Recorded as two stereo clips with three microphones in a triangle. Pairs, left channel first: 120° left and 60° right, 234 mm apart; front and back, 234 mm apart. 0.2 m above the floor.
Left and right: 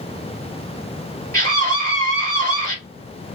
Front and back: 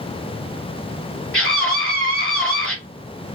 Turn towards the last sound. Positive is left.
turn(degrees=-10)